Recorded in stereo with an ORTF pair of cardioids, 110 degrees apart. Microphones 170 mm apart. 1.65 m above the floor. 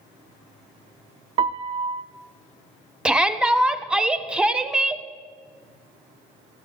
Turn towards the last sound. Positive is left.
turn(degrees=-5)